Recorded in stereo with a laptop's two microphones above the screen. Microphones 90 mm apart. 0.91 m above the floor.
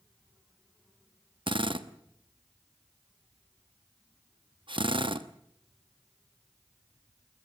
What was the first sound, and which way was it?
A drill, 70° right (ahead or behind).